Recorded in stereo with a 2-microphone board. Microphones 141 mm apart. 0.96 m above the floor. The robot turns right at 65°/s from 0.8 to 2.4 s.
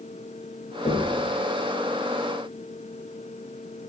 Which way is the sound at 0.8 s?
65° left (ahead or behind).